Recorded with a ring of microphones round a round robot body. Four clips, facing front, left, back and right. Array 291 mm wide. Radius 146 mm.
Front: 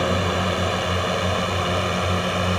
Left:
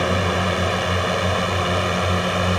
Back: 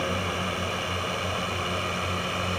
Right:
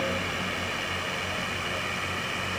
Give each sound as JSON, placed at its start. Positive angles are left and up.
{"t": 0.0, "sound": "a drone", "azimuth_deg": 55}